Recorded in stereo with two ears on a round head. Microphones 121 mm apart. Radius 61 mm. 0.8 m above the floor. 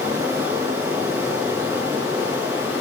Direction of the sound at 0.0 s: 20° right (ahead or behind).